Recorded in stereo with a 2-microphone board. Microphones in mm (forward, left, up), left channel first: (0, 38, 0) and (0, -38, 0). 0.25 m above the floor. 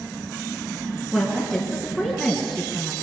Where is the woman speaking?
5° right (ahead or behind), 3.5 m.